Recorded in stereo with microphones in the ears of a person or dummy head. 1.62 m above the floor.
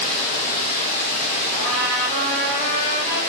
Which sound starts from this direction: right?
A trumpet, at 1.5 s.